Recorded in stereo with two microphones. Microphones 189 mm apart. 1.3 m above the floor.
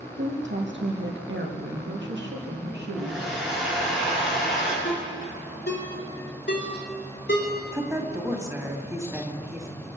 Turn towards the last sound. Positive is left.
turn(degrees=-15)  # may be behind; listen again after turning